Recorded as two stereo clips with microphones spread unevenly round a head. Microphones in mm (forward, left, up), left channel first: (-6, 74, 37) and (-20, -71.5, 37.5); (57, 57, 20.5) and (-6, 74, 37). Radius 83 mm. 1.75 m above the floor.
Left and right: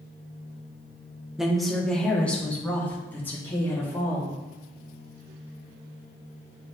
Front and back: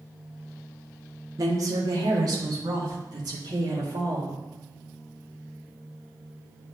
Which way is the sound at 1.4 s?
Straight behind.